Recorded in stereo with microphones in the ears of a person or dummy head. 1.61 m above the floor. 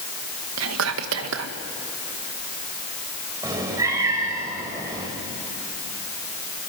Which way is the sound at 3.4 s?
15° right (ahead or behind).